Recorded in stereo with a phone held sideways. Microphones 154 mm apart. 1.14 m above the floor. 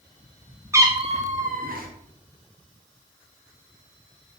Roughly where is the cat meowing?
Centre.